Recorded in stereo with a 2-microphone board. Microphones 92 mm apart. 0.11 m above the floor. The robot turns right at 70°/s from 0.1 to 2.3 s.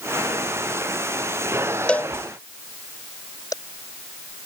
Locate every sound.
1.9 s a cowbell: 10° left (ahead or behind); by 3.5 s 40° left (ahead or behind)